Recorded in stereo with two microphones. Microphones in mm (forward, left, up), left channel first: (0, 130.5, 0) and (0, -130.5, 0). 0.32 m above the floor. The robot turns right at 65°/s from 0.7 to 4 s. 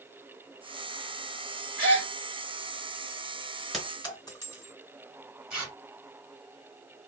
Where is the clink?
Centre (ahead or behind), 1.9 m; by 4.7 s 15° left (ahead or behind), 1.9 m.